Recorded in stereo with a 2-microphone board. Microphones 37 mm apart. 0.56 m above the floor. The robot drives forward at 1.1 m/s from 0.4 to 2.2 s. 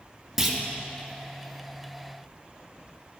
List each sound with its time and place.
0.4 s a clunk: 10° right (ahead or behind), 0.8 m